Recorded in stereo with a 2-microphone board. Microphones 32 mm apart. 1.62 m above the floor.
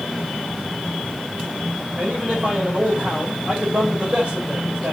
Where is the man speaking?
40° right (ahead or behind), 5.5 m.